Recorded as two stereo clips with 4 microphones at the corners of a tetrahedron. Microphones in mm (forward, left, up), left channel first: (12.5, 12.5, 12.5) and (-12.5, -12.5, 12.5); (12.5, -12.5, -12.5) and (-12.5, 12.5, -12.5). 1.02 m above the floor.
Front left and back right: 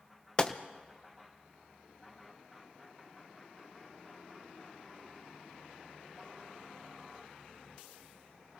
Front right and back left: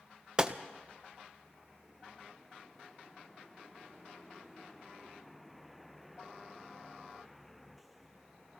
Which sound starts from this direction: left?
A gunshot, at 0.4 s.